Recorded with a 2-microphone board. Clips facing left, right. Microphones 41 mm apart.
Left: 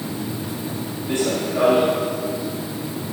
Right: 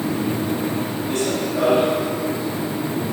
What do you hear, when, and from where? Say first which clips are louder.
1.1 s running footsteps: left 2 dB; 25° left (ahead or behind), 3.5 m